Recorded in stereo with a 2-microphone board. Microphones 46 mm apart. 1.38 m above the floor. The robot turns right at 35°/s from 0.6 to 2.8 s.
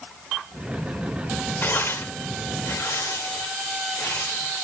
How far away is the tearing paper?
About 1.6 m.